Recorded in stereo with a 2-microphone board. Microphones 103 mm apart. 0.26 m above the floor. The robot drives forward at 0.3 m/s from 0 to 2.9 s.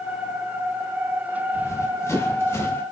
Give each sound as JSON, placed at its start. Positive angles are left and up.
{"t": 1.5, "sound": "running footsteps", "side_deg": 25, "distance_m": 6.5}